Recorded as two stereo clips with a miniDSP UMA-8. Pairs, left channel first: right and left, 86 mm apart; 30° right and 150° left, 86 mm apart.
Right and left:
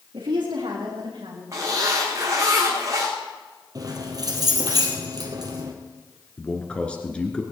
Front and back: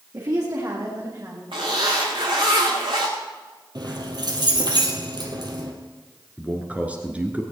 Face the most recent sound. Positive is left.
turn(degrees=-155)